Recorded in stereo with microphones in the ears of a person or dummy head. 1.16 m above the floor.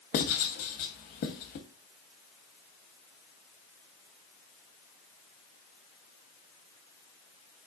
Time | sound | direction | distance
0.1 | writing | 45° left (ahead or behind) | 0.8 m